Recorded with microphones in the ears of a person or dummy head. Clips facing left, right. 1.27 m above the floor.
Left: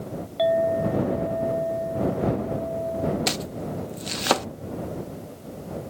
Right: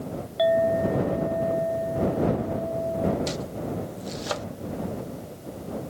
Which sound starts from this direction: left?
Chopping, at 3.3 s.